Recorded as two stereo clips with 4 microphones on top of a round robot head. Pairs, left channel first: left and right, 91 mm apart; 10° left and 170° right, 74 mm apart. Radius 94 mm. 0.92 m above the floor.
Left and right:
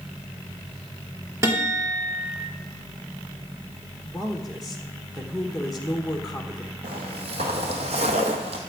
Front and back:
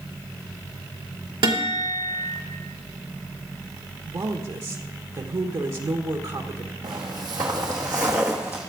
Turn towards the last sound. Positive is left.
turn(degrees=-95)